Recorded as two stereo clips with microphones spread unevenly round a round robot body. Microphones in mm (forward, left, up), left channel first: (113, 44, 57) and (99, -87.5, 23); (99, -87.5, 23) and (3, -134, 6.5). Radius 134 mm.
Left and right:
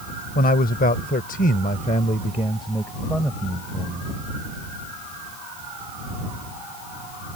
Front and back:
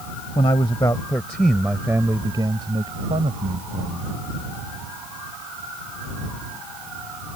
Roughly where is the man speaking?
Left.